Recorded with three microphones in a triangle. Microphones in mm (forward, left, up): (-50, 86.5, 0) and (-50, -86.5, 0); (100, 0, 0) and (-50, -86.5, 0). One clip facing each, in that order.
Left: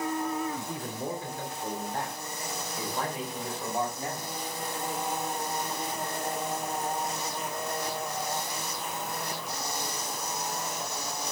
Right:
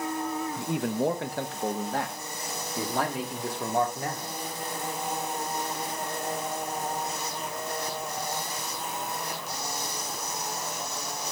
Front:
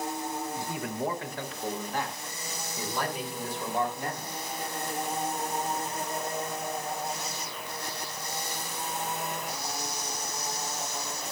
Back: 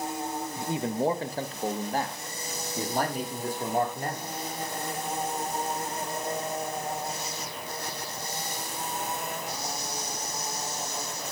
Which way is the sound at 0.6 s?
80° right.